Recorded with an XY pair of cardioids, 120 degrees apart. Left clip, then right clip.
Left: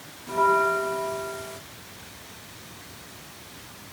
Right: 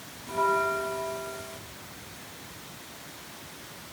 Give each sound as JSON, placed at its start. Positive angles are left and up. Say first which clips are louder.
{"t": 0.3, "sound": "a bell", "louder": "left 5 dB", "azimuth_deg": 20, "distance_m": 0.9}